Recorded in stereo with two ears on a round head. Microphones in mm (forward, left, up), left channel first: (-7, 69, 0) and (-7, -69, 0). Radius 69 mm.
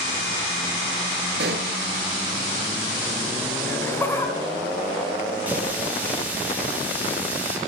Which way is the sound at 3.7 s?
15° left (ahead or behind).